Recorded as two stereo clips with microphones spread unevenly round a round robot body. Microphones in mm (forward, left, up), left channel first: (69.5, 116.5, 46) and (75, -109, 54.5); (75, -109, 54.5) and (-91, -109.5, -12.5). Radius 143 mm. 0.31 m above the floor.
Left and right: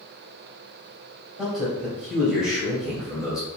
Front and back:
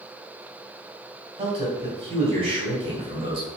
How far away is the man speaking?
About 2.5 m.